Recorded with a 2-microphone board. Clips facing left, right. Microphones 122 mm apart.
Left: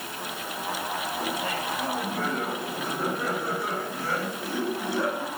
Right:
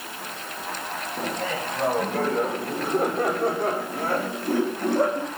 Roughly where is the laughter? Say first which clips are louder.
Right 5 dB; right.